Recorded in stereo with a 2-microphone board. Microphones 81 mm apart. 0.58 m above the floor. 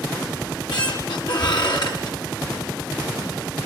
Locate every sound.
0.4 s a squeak: 60° left (ahead or behind), 4.5 m